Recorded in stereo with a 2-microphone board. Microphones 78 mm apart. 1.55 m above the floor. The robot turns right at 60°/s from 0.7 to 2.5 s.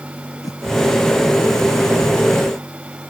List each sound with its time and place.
0.4 s a whoosh: 50° left (ahead or behind)